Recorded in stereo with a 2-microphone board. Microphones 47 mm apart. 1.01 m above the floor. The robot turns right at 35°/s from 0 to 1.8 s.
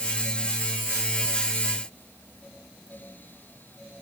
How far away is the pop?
No pop in this recording.